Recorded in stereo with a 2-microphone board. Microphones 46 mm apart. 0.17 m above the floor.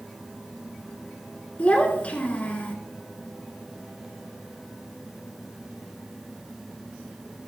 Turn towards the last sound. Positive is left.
turn(degrees=30)  # may be behind; listen again after turning